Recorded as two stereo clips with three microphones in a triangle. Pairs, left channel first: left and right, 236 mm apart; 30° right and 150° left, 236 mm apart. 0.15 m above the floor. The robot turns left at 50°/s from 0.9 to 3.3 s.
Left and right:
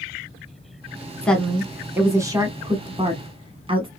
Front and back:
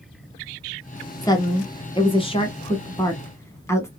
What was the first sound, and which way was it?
A woman speaking, 15° left.